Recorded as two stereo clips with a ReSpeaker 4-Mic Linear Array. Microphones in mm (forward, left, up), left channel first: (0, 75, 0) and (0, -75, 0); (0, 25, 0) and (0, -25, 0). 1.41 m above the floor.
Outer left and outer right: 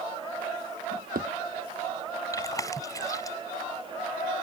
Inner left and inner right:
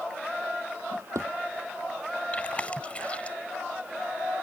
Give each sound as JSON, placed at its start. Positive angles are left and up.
{"t": 0.9, "sound": "a drawer", "side_deg": -70}
{"t": 2.3, "sound": "chewing", "side_deg": 20}